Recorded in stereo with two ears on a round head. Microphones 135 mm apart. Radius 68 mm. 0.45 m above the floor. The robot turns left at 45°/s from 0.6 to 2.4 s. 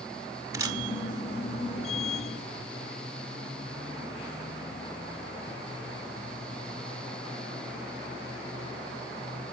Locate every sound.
0.5 s a camera shutter: 25° right (ahead or behind), 1.0 m; by 0.8 s 30° right (ahead or behind), 1.0 m